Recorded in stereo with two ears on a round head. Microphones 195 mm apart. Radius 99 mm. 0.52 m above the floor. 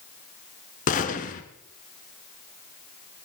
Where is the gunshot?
35° left (ahead or behind), 1.4 m.